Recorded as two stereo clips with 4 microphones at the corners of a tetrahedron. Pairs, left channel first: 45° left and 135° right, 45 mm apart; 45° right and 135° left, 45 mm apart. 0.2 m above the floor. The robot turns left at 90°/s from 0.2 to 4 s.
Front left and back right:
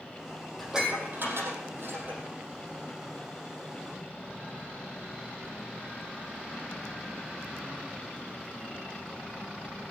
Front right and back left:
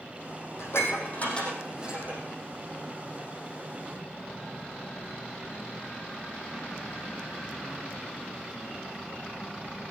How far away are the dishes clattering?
About 5 m.